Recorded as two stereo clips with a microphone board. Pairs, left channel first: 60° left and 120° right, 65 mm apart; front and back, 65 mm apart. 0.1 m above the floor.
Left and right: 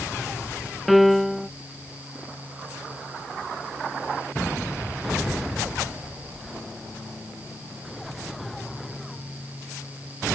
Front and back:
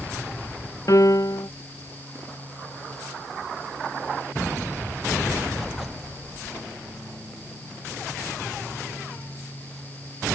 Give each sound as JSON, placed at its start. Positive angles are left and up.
{"t": 0.9, "sound": "a piano", "azimuth_deg": -30}